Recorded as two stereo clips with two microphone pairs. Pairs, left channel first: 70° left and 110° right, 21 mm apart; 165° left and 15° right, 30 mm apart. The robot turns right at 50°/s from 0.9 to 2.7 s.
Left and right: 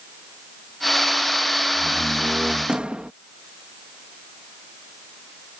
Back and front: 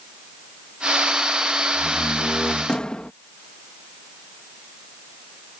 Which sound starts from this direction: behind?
A door slam, at 1.7 s.